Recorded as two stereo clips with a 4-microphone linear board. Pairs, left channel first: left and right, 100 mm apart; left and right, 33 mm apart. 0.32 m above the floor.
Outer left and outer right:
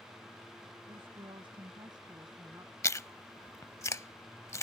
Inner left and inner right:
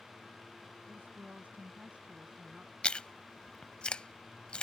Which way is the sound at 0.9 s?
65° right (ahead or behind).